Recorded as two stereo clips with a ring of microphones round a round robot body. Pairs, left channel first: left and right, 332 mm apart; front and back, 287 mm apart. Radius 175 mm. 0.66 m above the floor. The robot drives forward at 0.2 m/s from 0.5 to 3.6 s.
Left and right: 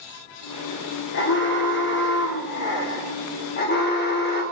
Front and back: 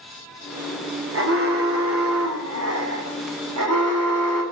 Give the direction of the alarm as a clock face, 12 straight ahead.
7 o'clock.